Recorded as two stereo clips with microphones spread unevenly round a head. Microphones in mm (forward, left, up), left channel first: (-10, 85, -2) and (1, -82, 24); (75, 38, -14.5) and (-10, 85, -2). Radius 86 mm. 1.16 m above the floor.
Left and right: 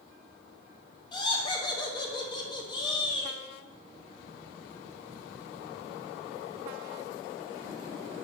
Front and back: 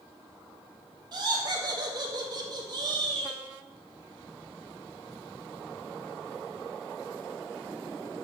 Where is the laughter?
130° left, 0.6 m.